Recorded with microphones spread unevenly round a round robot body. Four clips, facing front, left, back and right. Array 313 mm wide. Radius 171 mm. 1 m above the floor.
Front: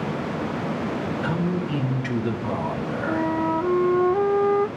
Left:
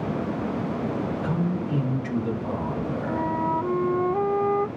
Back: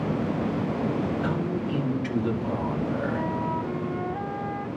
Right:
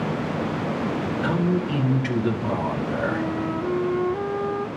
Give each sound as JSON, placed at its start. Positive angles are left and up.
{"t": 1.2, "sound": "a man speaking", "azimuth_deg": -75, "distance_m": 5.0}
{"t": 3.1, "sound": "a flute", "azimuth_deg": -5, "distance_m": 0.6}